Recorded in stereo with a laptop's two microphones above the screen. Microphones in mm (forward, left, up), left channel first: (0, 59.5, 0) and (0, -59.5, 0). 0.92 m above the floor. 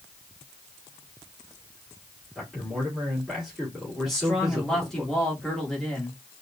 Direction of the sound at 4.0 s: 5° left (ahead or behind).